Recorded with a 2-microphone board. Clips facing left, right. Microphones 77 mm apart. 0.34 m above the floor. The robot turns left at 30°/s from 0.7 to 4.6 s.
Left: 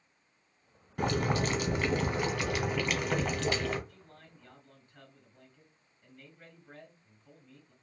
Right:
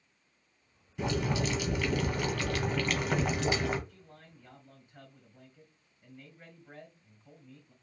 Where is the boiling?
60° left, 1.0 m; by 3.8 s 20° right, 1.0 m.